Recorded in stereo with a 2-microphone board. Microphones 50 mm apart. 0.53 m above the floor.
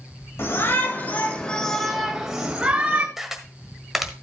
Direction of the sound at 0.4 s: 55° left (ahead or behind).